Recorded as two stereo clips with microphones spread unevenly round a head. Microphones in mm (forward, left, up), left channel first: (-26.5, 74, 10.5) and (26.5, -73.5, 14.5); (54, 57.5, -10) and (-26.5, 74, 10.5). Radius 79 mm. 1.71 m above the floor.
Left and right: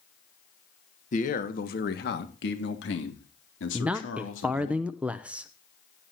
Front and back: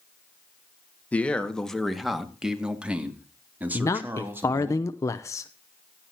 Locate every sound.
1.1 s a man speaking: 65° left, 1.7 m; by 4.7 s 105° left, 3.5 m
3.7 s a man speaking: 5° right, 0.6 m